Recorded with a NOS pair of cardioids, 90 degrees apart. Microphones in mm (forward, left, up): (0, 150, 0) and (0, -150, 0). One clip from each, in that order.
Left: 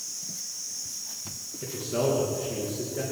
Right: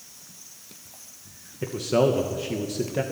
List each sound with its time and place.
1.6 s a man speaking: 60° right, 2.5 m